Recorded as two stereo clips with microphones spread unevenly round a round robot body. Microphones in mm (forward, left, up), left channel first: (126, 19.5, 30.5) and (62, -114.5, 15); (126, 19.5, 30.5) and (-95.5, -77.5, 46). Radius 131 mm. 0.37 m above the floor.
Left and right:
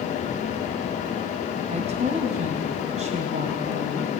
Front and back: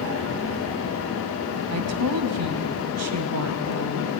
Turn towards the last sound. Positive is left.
turn(degrees=-165)